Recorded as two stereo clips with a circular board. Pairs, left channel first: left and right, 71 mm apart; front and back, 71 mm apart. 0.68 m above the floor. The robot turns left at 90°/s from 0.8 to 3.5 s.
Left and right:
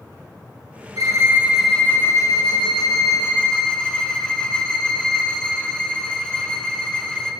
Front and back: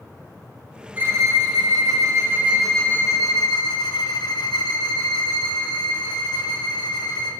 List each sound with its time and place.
1.0 s a violin: 115° right, 3 m; by 7.3 s 15° left, 3 m